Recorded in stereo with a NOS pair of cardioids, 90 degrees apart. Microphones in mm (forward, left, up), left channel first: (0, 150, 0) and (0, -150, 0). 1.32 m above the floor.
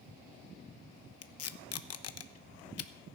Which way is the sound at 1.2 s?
55° left.